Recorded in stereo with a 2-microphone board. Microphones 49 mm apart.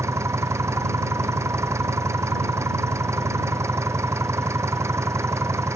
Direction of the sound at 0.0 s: 80° right.